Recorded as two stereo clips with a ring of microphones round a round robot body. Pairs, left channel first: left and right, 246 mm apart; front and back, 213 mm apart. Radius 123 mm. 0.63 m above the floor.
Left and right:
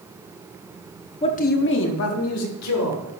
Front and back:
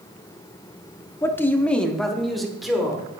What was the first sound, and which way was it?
A man speaking, 60° left.